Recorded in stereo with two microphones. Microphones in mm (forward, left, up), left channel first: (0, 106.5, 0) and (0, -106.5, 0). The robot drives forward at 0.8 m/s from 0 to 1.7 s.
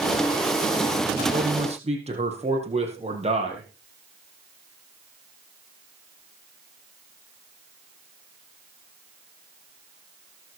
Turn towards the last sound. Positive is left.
turn(degrees=-30)  # may be behind; listen again after turning